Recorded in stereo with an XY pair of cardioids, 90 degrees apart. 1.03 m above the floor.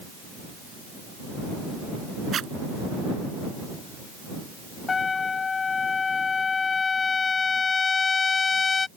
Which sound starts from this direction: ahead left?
A trumpet, at 4.9 s.